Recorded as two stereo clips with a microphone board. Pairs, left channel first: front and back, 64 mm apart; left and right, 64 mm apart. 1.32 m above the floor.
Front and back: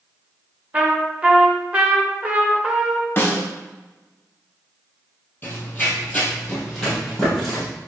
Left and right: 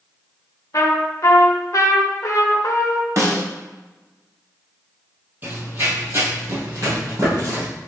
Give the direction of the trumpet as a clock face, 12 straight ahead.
8 o'clock.